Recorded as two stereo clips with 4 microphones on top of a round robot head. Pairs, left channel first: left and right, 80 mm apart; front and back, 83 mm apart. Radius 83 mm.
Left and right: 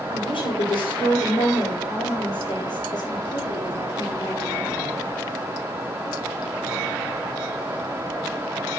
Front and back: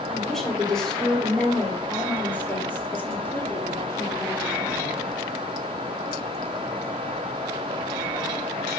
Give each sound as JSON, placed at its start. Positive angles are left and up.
{"t": 0.1, "sound": "a woman speaking", "azimuth_deg": 90, "distance_m": 5.0}